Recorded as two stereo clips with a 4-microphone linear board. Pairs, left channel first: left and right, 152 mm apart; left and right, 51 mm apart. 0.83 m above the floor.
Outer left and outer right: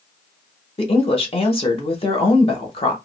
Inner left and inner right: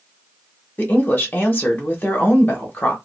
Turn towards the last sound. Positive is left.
turn(degrees=35)  # may be behind; listen again after turning